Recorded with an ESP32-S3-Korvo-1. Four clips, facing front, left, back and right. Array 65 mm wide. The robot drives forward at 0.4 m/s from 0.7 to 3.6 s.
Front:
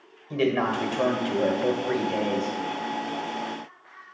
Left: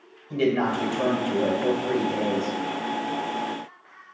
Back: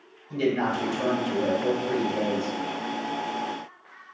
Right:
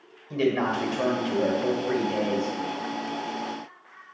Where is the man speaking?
10° right, 1.7 m; by 2.5 s 25° right, 1.2 m.